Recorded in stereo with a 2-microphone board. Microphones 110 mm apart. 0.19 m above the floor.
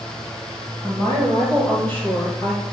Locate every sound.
0.8 s a woman speaking: 20° left (ahead or behind), 6.5 m